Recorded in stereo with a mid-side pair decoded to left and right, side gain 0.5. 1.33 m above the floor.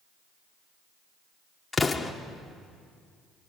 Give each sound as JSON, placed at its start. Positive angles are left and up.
{"t": 1.7, "sound": "an explosion", "azimuth_deg": 20, "distance_m": 1.7}